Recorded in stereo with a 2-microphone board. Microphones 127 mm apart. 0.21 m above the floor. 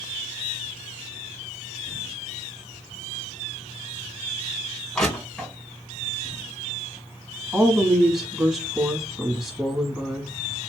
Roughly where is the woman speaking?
Centre.